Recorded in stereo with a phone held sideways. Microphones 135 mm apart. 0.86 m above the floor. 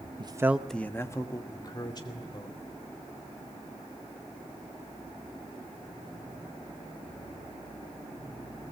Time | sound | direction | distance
0.2 | a man speaking | 40° right (ahead or behind) | 0.8 m